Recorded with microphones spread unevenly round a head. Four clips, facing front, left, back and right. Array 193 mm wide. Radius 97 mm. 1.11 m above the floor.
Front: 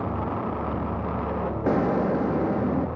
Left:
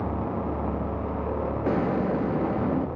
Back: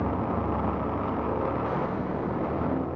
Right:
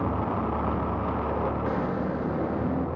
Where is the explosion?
30° left, 1.0 m.